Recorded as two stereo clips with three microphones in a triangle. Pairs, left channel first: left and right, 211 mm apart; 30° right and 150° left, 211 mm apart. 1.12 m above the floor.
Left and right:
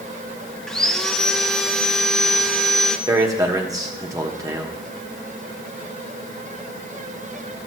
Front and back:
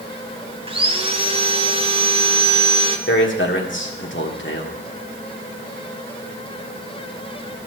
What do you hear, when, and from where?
0.7 s sawing: 175° left, 0.7 m
3.1 s a man speaking: 15° right, 1.4 m